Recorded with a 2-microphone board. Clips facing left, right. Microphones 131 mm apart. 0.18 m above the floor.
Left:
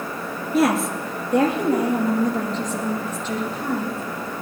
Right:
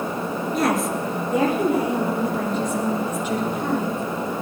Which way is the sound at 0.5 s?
5° left (ahead or behind).